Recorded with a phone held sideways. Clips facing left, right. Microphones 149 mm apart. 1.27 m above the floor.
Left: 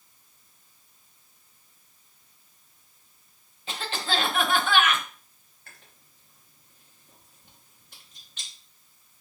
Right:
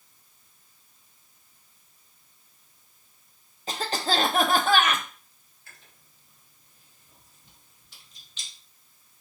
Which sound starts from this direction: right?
A cough, at 3.7 s.